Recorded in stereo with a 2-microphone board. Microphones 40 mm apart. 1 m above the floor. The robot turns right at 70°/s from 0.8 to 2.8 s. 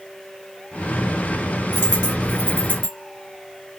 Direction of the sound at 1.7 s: 50° left (ahead or behind).